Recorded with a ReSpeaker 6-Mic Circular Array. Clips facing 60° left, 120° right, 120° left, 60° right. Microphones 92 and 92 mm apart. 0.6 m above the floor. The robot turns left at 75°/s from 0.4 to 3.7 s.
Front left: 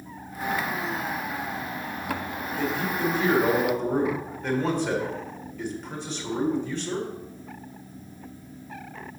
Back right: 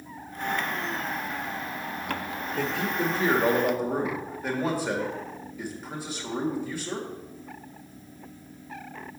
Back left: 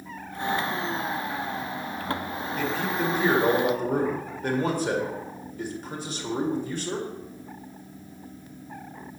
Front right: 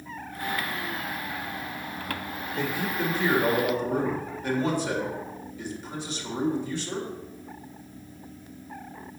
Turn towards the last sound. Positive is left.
turn(degrees=155)